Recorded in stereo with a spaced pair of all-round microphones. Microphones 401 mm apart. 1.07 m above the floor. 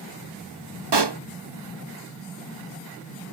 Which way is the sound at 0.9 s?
80° right.